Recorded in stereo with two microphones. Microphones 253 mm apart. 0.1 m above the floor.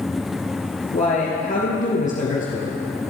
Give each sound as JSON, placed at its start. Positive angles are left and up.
{"t": 0.9, "sound": "a man speaking", "side_deg": 30, "distance_m": 2.0}